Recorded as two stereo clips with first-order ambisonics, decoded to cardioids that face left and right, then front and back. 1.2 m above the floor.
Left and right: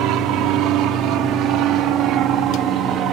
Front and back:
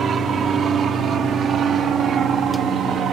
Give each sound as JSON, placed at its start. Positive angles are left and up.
{"t": 0.0, "sound": "an aircraft", "azimuth_deg": -120}